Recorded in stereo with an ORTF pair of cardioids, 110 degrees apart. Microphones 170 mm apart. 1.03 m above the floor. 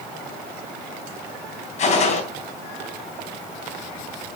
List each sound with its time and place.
1.8 s a gunshot: 45° left, 3 m